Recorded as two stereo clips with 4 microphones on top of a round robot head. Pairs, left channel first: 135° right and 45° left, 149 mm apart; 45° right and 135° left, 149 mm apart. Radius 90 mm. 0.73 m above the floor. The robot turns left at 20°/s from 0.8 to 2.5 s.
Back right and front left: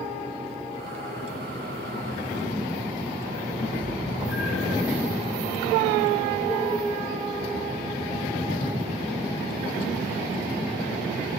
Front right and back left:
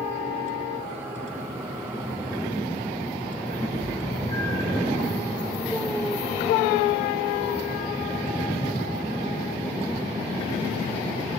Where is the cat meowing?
115° right, 1.8 m.